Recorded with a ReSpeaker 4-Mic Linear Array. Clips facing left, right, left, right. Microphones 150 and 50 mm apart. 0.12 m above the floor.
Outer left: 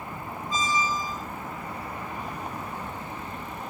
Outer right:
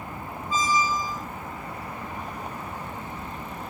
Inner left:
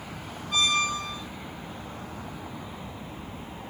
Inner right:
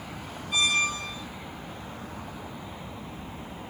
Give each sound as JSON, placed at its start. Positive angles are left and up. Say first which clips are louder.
{"t": 0.5, "sound": "a squeak", "louder": "outer right 3 dB, even", "side_deg": -10, "distance_m": 1.4}